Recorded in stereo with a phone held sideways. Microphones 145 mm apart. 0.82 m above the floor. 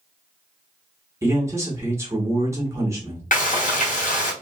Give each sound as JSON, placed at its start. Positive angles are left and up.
{"t": 1.2, "sound": "a man speaking", "side_deg": -20, "distance_m": 0.9}
{"t": 3.3, "sound": "frying", "side_deg": 65, "distance_m": 1.0}